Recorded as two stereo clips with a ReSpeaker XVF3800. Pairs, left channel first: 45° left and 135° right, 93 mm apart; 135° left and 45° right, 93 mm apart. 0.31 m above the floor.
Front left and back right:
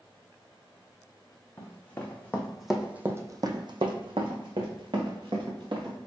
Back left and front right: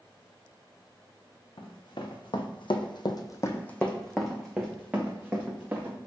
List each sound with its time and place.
1.6 s running footsteps: 110° left, 1.4 m; by 6.0 s 115° right, 2 m